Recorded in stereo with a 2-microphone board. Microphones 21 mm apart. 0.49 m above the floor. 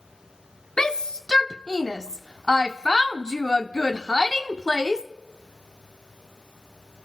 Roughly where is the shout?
Left.